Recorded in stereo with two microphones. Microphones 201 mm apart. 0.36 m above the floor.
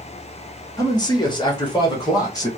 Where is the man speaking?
15° left (ahead or behind), 0.9 m; by 2.5 s 20° left (ahead or behind), 1.6 m.